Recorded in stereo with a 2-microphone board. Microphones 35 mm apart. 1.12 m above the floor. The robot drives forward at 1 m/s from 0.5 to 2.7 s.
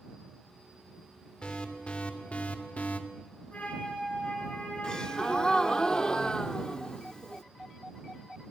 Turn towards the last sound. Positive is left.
turn(degrees=25)  # may be behind; listen again after turning